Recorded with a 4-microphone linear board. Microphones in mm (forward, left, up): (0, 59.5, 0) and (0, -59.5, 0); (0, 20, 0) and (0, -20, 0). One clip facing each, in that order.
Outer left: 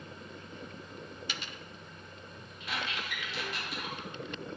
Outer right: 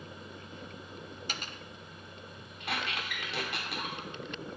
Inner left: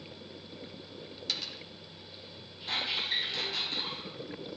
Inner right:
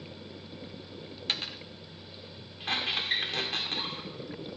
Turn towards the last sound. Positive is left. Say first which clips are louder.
# outer right 2 dB, inner right 2 dB
turn(degrees=-65)  # may be behind; listen again after turning